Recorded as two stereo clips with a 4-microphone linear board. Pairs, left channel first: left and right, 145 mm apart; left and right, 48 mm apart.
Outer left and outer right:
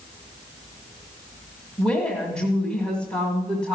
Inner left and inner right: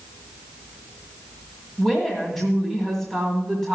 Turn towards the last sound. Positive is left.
turn(degrees=5)  # may be behind; listen again after turning